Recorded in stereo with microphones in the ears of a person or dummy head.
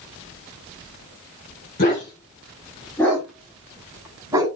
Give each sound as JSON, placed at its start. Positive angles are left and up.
{"t": 1.8, "sound": "a dog barking", "side_deg": 35, "distance_m": 1.5}